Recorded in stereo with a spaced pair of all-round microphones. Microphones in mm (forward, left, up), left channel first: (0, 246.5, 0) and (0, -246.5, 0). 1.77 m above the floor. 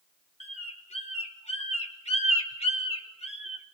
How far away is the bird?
About 2.5 m.